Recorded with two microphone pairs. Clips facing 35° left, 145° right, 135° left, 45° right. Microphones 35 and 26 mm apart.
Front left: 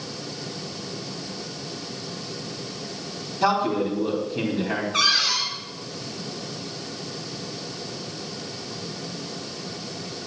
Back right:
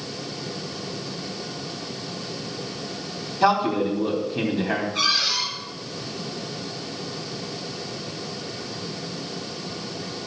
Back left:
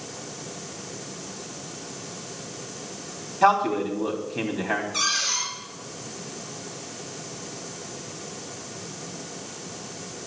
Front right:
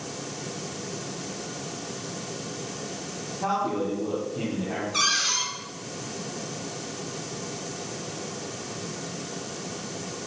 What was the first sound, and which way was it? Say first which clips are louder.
A man speaking: back right 2 dB, back left 7 dB; 140° left.